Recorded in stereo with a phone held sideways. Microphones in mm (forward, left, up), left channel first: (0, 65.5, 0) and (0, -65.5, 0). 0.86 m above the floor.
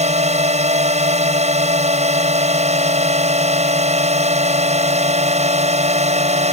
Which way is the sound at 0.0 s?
60° right (ahead or behind).